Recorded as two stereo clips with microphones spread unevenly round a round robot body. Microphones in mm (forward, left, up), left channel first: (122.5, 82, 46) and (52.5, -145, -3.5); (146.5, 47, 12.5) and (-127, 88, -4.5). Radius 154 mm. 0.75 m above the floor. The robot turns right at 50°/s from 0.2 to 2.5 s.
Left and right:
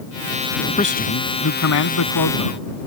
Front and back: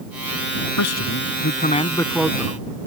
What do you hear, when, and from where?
0.8 s a man speaking: 10° left; by 2.7 s 95° left